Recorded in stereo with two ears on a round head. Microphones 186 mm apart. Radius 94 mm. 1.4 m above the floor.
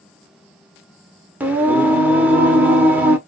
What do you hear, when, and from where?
1.4 s singing: 10° right (ahead or behind), 1.2 m